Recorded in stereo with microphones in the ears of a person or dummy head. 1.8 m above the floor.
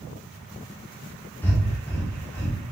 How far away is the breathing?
About 2.0 m.